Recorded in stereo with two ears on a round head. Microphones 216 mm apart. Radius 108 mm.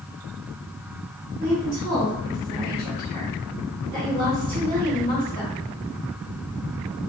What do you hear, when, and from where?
1.4 s a woman speaking: 15° right (ahead or behind), 1.8 m; by 5.5 s 20° right (ahead or behind), 4 m